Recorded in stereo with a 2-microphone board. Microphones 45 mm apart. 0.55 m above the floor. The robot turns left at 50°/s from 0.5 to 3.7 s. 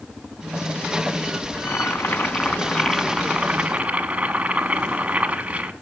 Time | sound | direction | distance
1.6 | boiling | 75° left | 0.8 m